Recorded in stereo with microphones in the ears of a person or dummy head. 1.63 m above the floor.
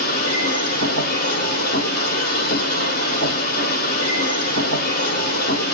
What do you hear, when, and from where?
0.0 s a machine running: 50° left (ahead or behind), 1.6 m